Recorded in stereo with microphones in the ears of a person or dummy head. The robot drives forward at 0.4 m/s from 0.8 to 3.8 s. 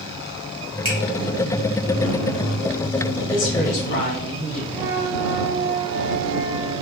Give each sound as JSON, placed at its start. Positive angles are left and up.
{"t": 0.8, "sound": "a finger snap", "side_deg": -30, "distance_m": 1.2}
{"t": 3.3, "sound": "a woman speaking", "side_deg": 40, "distance_m": 0.9}
{"t": 4.7, "sound": "a flute", "side_deg": -10, "distance_m": 0.6}